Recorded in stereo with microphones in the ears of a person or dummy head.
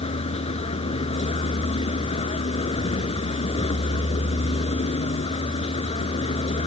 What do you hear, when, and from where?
0.0 s a vehicle: 35° left (ahead or behind)